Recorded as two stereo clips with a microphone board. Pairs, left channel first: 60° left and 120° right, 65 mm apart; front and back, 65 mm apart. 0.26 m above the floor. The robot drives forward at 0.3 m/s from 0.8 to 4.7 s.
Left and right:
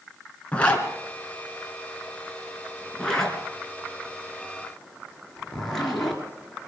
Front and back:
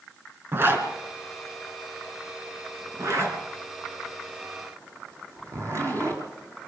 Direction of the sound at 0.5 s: 130° left.